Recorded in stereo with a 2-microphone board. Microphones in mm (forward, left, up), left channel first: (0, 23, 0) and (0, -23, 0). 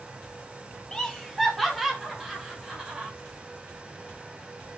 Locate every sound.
0.9 s laughter: 15° left (ahead or behind), 0.6 m; by 3.1 s 15° right (ahead or behind), 1.7 m